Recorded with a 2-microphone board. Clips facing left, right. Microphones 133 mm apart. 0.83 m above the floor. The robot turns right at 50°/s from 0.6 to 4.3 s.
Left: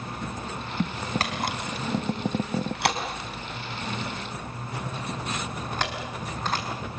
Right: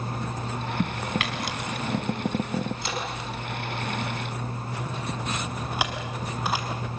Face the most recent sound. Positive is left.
turn(degrees=-10)  # may be behind; listen again after turning